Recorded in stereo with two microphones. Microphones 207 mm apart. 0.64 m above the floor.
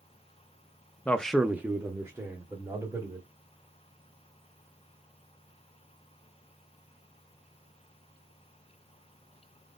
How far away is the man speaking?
About 0.6 m.